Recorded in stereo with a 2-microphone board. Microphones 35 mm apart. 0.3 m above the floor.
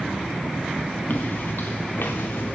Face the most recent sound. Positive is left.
turn(degrees=75)  # may be behind; listen again after turning